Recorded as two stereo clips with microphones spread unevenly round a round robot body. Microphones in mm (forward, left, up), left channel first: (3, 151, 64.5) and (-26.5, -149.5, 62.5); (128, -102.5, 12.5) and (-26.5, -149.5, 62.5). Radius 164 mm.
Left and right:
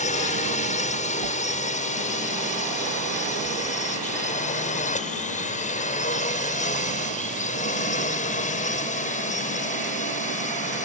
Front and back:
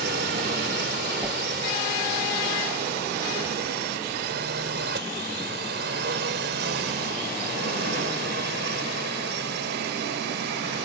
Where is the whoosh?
85° right.